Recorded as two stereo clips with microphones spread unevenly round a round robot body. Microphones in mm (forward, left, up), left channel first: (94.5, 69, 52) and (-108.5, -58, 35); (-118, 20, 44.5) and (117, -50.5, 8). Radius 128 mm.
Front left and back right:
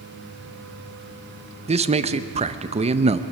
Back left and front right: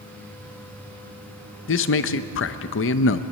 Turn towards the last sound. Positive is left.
turn(degrees=170)